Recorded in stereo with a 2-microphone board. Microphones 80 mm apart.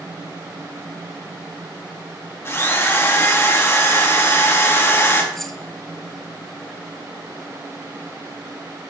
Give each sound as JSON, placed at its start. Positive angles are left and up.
{"t": 2.5, "sound": "a drill", "side_deg": 30, "distance_m": 2.0}
{"t": 5.3, "sound": "keys jangling", "side_deg": 5, "distance_m": 0.9}